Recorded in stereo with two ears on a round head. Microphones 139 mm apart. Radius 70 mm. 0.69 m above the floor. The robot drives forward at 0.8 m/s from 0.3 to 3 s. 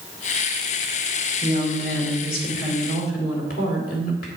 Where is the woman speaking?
60° left (ahead or behind), 3 m; by 4.3 s 70° left (ahead or behind), 2.5 m.